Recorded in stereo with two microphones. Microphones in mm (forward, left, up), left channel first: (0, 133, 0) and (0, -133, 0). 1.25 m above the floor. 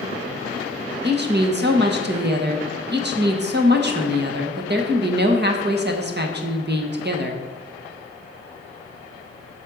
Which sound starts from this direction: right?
A woman speaking, at 1.0 s.